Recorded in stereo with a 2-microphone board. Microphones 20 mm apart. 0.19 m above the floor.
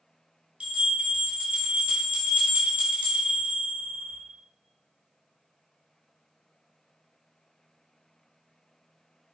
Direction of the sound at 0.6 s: 80° right.